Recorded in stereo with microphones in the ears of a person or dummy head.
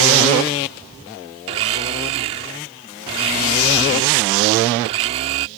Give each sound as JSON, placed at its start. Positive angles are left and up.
{"t": 1.5, "sound": "a blender", "side_deg": -25}